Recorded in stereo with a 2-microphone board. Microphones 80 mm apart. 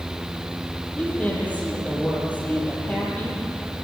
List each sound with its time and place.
1.0 s a woman speaking: 20° left (ahead or behind), 10 m